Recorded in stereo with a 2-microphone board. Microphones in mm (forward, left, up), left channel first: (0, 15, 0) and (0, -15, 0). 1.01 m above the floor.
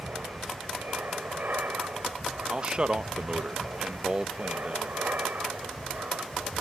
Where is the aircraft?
75° right (ahead or behind).